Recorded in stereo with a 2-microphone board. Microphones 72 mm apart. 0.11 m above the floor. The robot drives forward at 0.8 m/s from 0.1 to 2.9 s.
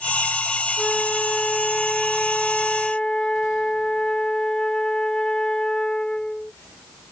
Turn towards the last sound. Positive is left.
turn(degrees=10)  # may be behind; listen again after turning